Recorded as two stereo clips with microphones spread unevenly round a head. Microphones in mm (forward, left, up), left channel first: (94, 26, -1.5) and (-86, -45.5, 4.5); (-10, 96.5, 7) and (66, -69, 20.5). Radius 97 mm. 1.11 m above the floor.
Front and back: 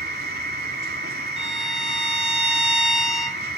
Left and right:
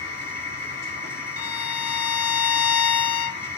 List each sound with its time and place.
0.0 s a machine running: 160° left, 6 m
1.4 s a violin: 115° left, 1.4 m